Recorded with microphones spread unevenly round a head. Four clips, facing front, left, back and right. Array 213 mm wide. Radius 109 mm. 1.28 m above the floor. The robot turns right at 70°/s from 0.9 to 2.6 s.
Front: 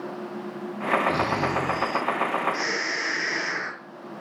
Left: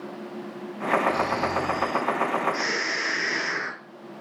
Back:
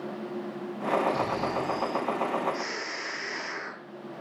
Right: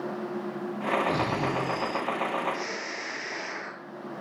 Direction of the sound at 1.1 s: 50° right.